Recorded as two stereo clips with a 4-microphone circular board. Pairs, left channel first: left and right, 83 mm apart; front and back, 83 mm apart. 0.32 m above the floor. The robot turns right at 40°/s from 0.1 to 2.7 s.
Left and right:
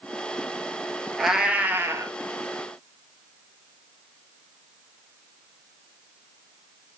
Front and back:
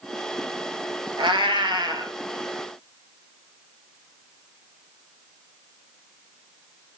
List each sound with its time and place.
1.2 s a cat meowing: straight behind, 0.7 m; by 2.1 s 140° right, 0.7 m